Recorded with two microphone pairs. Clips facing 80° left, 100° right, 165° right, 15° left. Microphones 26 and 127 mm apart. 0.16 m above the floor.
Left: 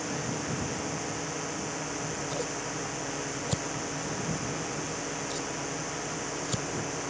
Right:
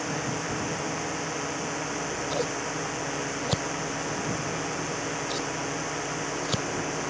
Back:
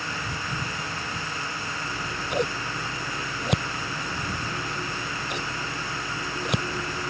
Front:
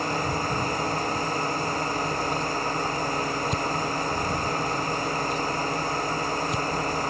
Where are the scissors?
160° right.